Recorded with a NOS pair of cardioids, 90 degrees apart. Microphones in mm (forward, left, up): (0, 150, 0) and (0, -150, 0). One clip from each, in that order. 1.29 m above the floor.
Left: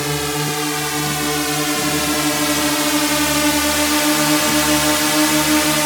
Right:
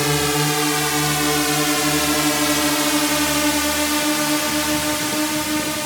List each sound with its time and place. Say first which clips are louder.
0.0 s a drone: right 2 dB; 15° right; by 5.9 s 55° left